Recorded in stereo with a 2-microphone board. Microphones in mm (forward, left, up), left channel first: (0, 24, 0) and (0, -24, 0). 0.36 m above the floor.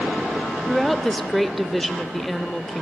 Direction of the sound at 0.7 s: Centre (ahead or behind).